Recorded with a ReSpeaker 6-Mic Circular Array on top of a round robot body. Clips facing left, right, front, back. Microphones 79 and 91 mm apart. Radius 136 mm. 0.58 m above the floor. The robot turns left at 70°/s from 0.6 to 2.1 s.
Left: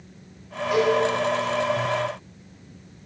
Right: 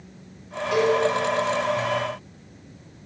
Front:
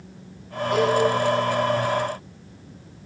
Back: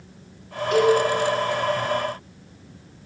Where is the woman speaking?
No woman speaking in this recording.